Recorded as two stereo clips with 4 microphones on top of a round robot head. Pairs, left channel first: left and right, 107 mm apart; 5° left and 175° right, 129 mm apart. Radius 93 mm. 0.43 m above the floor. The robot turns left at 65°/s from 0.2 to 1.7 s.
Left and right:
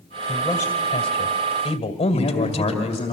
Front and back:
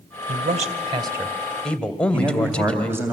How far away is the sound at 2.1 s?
About 3 m.